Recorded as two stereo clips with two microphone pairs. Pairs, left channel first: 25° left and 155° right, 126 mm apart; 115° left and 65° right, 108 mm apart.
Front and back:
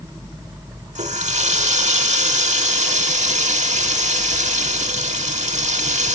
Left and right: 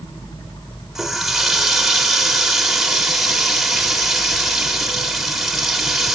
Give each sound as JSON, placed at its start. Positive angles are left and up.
{"t": 0.9, "sound": "a running tap", "azimuth_deg": -155, "distance_m": 1.1}